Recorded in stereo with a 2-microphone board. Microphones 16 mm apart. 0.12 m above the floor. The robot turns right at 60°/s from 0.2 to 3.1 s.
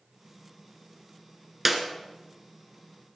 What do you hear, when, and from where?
1.6 s a clap: 15° right (ahead or behind), 1.5 m; by 1.8 s 20° right (ahead or behind), 1.5 m